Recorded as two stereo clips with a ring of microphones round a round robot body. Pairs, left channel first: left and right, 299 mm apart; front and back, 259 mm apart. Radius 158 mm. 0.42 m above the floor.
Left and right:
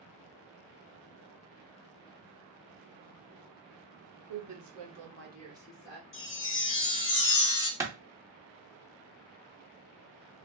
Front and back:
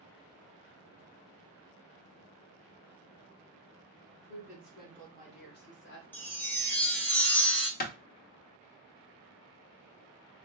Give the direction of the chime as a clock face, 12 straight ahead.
9 o'clock.